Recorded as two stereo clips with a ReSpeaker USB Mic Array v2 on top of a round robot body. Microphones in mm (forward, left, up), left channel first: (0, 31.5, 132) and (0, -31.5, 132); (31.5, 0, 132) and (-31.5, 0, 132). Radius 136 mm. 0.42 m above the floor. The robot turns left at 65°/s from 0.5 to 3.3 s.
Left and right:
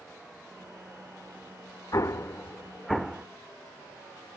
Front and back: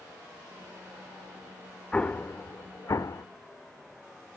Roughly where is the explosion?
Left.